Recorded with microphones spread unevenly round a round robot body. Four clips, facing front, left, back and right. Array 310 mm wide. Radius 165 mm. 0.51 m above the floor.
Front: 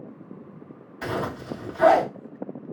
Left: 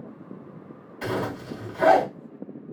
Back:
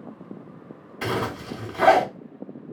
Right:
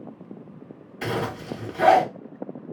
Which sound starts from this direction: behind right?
A zipper, at 1.0 s.